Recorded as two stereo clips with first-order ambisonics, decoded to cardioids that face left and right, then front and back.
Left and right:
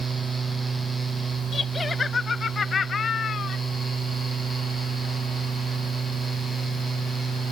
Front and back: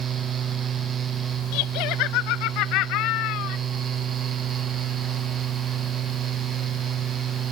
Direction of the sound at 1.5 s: 15° left.